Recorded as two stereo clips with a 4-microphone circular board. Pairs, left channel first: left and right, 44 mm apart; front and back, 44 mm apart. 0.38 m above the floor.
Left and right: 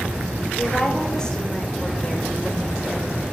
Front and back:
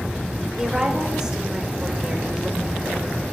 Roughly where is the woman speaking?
Behind left.